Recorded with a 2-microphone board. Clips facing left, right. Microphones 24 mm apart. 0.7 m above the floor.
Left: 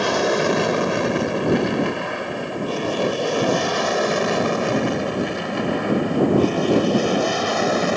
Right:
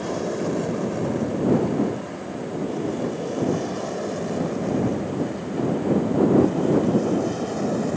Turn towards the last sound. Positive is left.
turn(degrees=60)  # may be behind; listen again after turning